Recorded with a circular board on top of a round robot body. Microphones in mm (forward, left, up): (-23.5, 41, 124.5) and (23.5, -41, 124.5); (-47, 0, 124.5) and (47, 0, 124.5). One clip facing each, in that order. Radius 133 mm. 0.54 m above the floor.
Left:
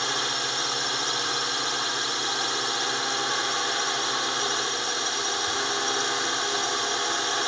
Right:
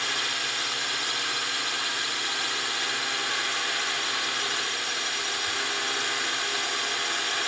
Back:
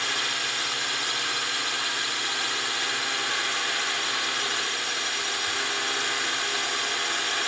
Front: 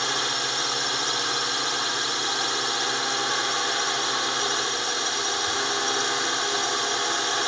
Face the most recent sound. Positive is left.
turn(degrees=60)